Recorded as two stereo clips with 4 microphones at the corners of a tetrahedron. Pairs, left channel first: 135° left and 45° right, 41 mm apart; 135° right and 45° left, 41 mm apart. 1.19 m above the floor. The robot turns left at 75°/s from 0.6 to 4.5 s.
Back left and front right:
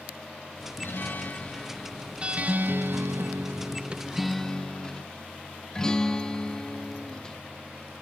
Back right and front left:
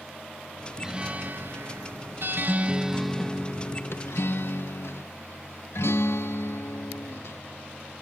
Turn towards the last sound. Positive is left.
turn(degrees=-155)